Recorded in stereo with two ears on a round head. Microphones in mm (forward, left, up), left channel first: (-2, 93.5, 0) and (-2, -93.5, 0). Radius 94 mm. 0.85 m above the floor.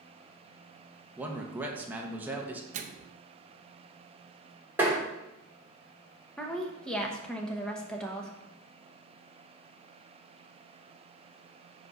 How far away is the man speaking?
About 0.9 m.